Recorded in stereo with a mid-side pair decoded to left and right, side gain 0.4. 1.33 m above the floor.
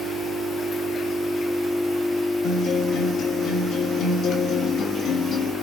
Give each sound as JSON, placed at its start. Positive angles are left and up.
{"t": 2.4, "sound": "a guitar", "azimuth_deg": 65, "distance_m": 1.9}